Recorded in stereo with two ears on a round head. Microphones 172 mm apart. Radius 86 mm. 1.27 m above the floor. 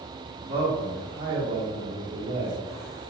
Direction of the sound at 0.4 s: 60° right (ahead or behind).